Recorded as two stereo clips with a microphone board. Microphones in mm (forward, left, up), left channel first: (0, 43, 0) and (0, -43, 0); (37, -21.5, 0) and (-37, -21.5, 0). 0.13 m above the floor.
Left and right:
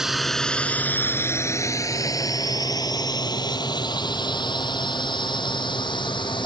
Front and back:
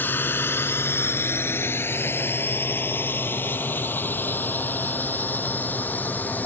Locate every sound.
0.0 s a drone: 10° right; by 6.5 s 65° left